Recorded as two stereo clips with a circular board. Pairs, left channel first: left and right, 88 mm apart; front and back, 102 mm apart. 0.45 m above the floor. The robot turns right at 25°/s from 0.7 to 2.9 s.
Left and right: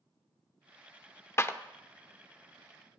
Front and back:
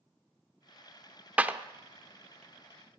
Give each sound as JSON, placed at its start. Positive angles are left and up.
{"t": 1.4, "sound": "a clap", "azimuth_deg": 115, "distance_m": 0.6}